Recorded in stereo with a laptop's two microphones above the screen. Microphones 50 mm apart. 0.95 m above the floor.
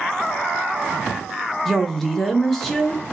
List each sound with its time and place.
1.6 s a woman speaking: 5° left (ahead or behind), 0.6 m